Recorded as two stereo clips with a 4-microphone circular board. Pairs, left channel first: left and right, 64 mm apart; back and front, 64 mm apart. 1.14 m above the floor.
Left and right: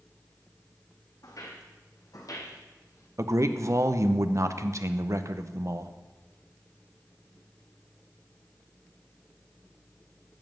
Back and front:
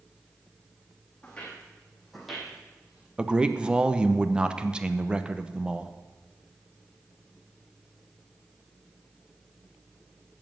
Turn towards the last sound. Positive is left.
turn(degrees=-70)